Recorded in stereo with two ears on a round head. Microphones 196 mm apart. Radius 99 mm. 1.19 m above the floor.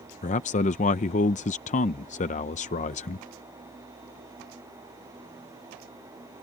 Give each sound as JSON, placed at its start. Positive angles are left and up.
{"t": 0.2, "sound": "a man speaking", "side_deg": 35}